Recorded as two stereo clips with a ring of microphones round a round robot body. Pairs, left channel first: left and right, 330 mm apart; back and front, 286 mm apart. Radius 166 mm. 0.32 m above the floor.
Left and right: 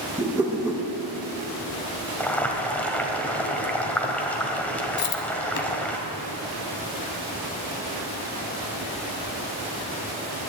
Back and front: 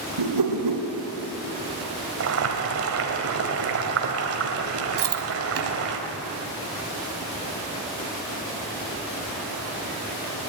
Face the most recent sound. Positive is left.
turn(degrees=35)